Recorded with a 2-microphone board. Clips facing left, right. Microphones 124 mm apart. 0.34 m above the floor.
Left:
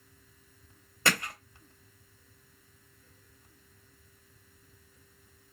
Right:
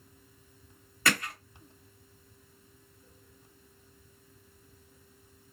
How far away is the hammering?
About 1.7 m.